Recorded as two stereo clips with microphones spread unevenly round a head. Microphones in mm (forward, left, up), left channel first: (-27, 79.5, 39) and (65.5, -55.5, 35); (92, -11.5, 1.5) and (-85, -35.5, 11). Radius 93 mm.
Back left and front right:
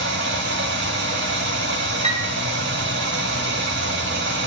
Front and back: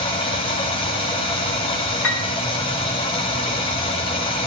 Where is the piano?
Straight ahead, 2.5 m.